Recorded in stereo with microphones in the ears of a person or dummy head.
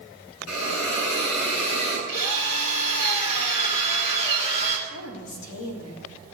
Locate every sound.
0.5 s a hiss: 80° left, 7 m
2.1 s a drill: 45° left (ahead or behind), 2.5 m
4.9 s a woman speaking: 80° left, 3.5 m